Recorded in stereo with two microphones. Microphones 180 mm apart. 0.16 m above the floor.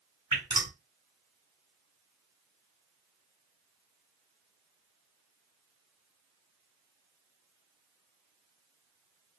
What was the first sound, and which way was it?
Dripping, 30° right (ahead or behind).